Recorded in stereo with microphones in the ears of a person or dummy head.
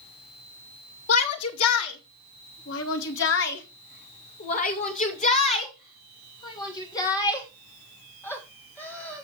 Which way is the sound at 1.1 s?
85° left.